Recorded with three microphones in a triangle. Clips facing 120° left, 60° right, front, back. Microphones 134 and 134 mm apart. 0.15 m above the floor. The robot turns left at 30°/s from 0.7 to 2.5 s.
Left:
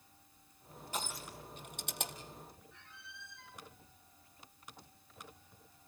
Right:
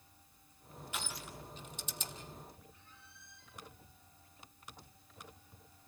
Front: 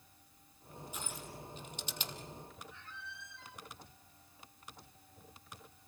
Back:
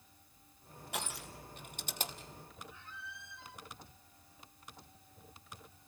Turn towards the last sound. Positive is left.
turn(degrees=100)